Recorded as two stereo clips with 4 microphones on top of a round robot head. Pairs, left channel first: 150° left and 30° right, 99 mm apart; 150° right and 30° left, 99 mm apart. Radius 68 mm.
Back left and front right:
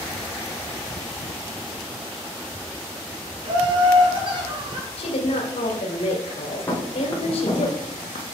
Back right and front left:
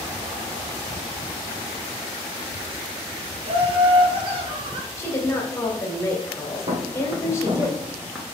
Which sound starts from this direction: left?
Footsteps, at 6.7 s.